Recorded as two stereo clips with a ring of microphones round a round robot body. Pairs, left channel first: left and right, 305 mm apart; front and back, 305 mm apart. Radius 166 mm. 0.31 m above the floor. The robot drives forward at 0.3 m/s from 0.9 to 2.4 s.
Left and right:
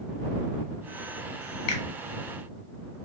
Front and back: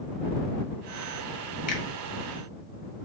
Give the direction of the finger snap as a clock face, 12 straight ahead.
10 o'clock.